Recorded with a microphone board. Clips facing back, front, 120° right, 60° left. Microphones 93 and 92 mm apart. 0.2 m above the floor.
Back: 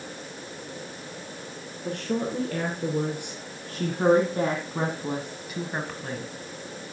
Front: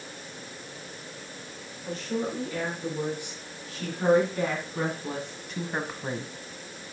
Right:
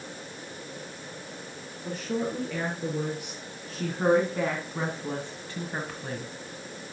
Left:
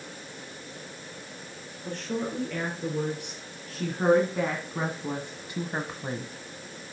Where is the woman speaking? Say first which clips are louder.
Back 2 dB, right 1 dB; 155° left, 3.5 m; by 6.3 s 25° left, 1.3 m.